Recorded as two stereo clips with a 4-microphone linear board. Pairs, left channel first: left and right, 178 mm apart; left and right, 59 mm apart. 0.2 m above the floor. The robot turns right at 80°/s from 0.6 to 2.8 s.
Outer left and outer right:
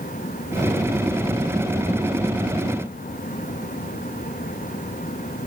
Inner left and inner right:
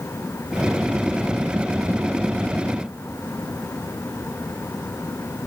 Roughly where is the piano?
No piano in this recording.